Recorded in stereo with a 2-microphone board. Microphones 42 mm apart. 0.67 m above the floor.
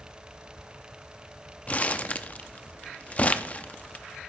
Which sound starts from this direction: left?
Crumpling, at 1.7 s.